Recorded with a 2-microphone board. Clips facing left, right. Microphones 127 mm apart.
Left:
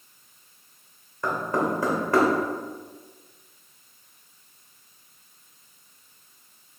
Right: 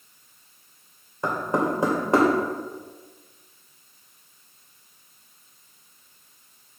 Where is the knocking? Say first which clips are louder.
Right 1 dB; 25° right (ahead or behind), 2.5 m.